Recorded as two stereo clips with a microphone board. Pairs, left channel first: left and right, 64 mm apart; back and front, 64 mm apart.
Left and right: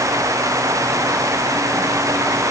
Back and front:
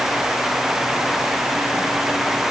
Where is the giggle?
No giggle in this recording.